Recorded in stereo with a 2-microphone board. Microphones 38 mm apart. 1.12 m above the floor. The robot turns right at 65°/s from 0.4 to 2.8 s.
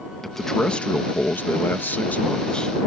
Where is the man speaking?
10° left; by 2.8 s 165° left.